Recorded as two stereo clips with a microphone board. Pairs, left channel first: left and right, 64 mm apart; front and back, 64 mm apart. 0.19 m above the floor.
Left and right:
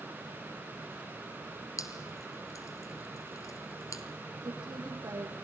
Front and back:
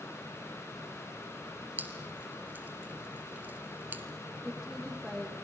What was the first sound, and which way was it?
Dripping, 120° left.